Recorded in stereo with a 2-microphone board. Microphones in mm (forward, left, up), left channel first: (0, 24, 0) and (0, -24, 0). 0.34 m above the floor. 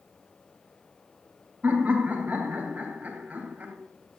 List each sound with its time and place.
1.6 s laughter: 35° right (ahead or behind), 2 m